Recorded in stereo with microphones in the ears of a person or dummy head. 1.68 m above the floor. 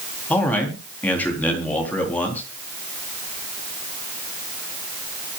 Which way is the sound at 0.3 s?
10° left (ahead or behind).